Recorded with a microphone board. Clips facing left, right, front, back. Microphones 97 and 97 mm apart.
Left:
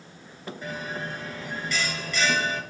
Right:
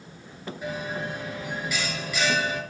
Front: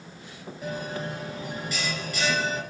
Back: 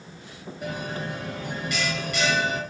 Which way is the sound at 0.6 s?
170° right.